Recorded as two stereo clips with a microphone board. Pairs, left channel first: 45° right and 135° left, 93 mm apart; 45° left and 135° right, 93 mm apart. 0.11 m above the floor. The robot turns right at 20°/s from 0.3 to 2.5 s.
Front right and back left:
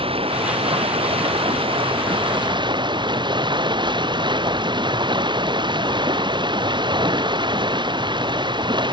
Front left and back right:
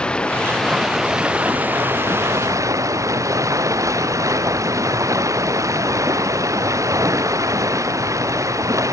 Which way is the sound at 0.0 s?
125° left.